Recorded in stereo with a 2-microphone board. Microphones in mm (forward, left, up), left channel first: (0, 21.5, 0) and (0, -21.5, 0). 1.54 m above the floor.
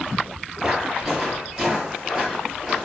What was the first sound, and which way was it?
Footsteps, 20° right (ahead or behind).